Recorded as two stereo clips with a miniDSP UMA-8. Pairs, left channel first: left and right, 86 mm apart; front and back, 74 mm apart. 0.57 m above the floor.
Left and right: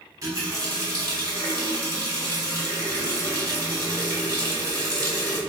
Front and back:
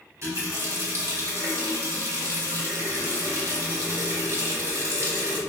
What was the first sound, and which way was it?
A running tap, 135° right.